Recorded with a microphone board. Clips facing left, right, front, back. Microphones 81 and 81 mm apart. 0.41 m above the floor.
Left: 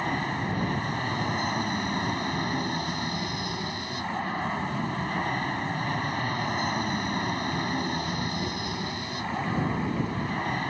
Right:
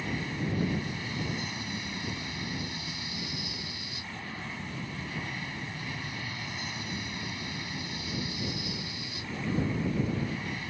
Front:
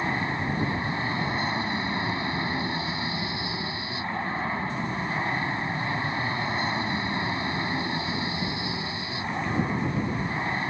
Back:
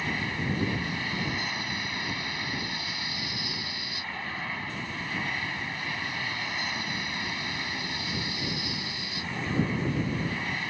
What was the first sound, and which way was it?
An aircraft, 60° left.